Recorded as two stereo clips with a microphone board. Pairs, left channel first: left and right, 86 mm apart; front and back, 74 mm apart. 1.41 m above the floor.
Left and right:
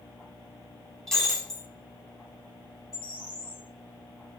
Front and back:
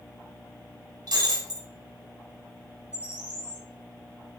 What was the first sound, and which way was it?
Breaking glass, 175° left.